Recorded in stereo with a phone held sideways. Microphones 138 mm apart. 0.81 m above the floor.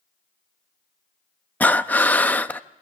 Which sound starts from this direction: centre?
Breathing, at 1.6 s.